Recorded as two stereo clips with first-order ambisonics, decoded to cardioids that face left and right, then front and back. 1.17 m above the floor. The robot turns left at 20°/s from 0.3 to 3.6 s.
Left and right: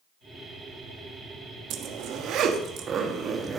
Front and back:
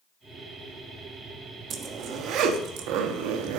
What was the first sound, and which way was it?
A zipper, 125° right.